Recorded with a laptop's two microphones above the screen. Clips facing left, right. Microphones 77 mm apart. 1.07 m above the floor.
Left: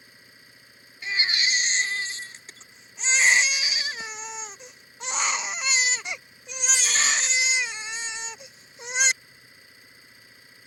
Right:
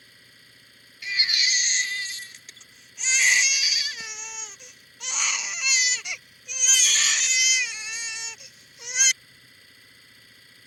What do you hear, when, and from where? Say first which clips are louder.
0.0 s an engine running: left 2 dB; 15° left (ahead or behind)
1.0 s a baby crying: left 2 dB; 30° left (ahead or behind)